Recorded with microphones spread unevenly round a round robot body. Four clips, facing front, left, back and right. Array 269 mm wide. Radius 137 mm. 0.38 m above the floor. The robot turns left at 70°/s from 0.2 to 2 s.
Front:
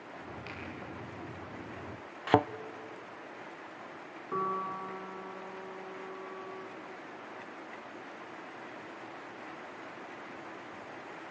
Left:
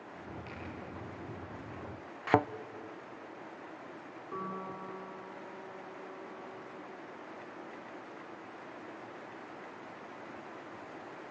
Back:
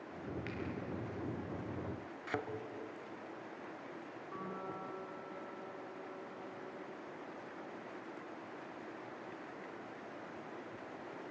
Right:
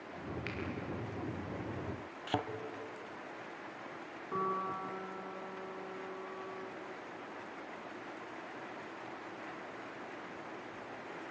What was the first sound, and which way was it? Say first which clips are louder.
A finger snap: right 3 dB, even; 115° right.